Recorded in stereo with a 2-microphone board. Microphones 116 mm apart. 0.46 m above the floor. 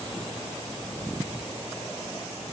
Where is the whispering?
No whispering in this recording.